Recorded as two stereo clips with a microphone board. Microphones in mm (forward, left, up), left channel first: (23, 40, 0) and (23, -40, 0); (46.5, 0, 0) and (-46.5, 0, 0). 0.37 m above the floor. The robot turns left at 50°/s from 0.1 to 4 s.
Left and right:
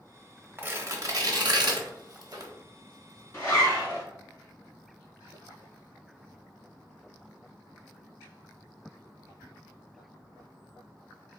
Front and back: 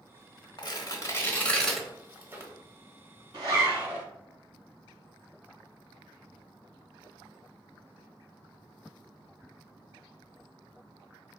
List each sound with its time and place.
0.6 s tearing paper: 30° right, 0.7 m; by 2.5 s 130° right, 0.7 m
3.3 s a zipper: 140° left, 1.7 m; by 4.0 s 110° left, 1.7 m